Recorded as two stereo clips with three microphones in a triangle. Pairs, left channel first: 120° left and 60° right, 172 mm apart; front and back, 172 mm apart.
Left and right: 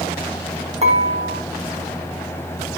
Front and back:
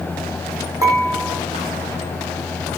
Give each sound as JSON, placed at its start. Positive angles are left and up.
{"t": 0.8, "sound": "dishes clattering", "azimuth_deg": -110, "distance_m": 4.0}